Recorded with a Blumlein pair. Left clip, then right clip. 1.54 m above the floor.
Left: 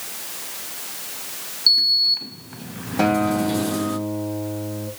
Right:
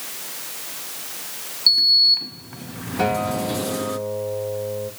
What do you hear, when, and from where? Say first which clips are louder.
1.7 s a sliding door: right 2 dB; straight ahead, 0.7 m
3.0 s a guitar: left 2 dB; 20° left, 3.5 m